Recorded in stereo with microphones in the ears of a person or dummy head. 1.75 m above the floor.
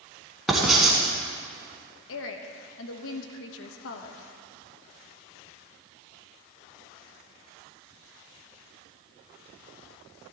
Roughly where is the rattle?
No rattle in this recording.